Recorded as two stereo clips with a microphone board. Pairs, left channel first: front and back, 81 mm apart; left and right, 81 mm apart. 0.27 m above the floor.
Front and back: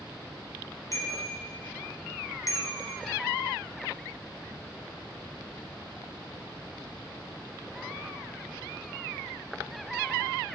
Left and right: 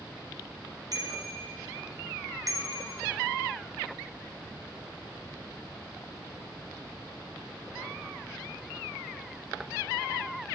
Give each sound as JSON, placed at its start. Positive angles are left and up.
{"t": 0.9, "sound": "a bicycle bell", "azimuth_deg": -50, "distance_m": 5.0}